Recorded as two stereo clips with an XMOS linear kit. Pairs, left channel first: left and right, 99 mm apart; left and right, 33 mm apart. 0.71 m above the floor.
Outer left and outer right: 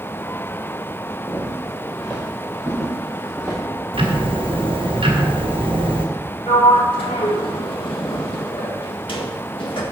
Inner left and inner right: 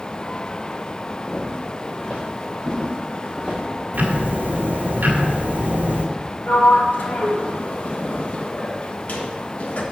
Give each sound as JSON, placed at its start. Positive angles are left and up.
{"t": 1.3, "sound": "footsteps", "side_deg": 5, "distance_m": 5.0}
{"t": 3.9, "sound": "ticking", "side_deg": -65, "distance_m": 1.8}
{"t": 6.5, "sound": "a sliding door", "side_deg": 60, "distance_m": 1.5}